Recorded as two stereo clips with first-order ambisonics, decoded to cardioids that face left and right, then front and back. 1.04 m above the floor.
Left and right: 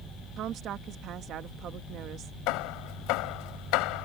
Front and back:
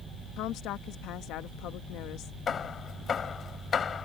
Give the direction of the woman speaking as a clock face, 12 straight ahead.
1 o'clock.